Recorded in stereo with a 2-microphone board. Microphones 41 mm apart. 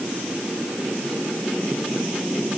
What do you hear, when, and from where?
Only background noise.